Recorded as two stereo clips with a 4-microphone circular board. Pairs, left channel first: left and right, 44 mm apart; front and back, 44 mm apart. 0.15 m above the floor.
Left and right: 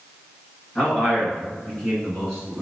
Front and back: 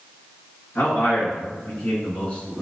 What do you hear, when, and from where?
0.8 s a man speaking: 35° left, 2.0 m; by 2.6 s 5° left, 1.4 m